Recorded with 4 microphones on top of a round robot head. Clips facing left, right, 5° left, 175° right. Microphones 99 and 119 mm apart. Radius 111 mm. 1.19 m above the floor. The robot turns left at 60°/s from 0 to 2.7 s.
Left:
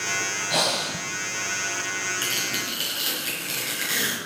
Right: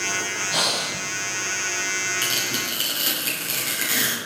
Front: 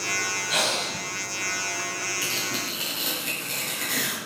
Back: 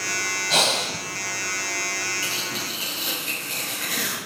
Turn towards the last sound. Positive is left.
turn(degrees=-50)